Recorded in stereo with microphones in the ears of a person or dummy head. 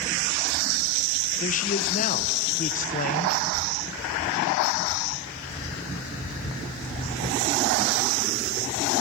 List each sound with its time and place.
1.4 s a man speaking: 40° left (ahead or behind), 0.9 m